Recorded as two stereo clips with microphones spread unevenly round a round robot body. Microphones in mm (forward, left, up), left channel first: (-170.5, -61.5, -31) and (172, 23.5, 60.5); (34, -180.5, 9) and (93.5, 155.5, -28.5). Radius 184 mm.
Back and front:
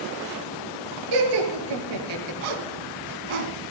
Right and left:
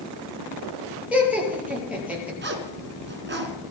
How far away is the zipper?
About 3 m.